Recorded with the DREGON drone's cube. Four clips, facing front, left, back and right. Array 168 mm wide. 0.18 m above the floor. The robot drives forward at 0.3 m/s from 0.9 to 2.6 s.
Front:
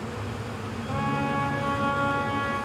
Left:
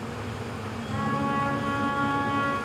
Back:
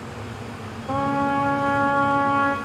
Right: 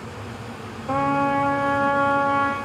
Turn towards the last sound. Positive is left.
turn(degrees=-140)